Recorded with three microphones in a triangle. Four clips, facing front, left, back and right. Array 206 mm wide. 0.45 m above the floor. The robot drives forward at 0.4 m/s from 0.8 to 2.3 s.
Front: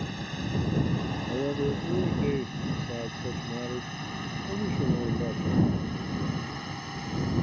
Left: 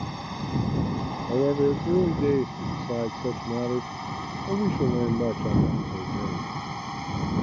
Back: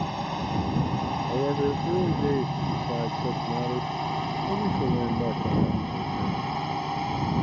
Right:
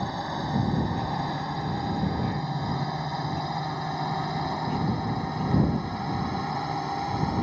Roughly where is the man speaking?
Left.